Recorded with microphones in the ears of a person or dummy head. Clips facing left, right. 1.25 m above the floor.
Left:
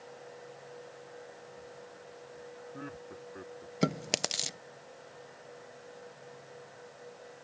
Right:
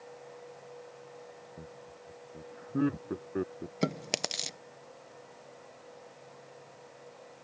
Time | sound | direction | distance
1.6 | laughter | 60° right (ahead or behind) | ?
3.8 | chewing | centre (ahead or behind) | ?